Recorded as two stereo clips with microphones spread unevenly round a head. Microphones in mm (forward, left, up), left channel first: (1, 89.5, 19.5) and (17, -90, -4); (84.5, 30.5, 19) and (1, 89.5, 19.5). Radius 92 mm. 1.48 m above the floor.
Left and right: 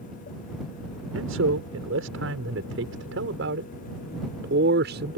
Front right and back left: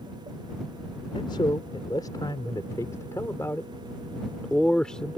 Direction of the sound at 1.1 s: 100° right.